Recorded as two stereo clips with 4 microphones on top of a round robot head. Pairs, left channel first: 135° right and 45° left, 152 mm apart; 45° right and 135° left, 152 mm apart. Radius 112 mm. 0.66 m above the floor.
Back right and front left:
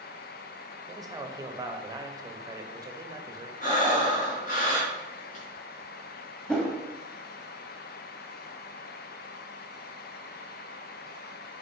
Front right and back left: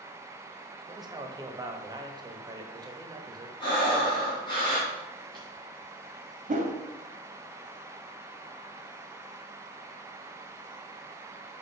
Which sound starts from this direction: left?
A man speaking, at 0.9 s.